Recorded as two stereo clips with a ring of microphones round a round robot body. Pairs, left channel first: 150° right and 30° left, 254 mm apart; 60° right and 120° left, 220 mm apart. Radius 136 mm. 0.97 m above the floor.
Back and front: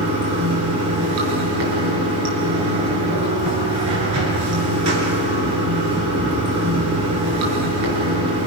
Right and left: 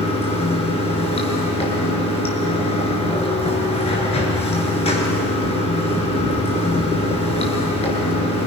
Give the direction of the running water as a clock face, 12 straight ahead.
12 o'clock.